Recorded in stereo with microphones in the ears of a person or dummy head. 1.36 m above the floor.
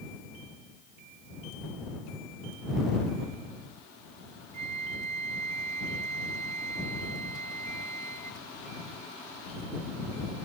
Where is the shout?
I don't hear a shout.